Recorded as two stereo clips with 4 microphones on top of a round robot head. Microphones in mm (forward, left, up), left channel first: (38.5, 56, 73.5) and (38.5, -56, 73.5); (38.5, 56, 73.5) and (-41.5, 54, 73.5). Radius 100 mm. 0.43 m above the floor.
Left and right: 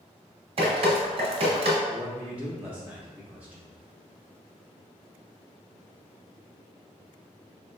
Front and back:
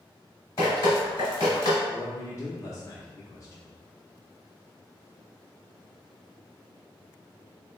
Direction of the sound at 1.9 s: 15° right.